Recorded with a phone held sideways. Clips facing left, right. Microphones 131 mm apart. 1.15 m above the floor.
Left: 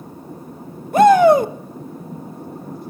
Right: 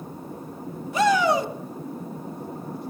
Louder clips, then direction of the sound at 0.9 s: Left 10 dB; 50° left (ahead or behind).